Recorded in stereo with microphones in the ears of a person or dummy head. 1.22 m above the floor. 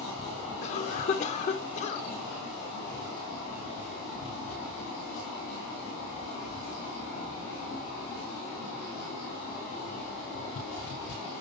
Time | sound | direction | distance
0.6 | a cough | 35° left (ahead or behind) | 0.5 m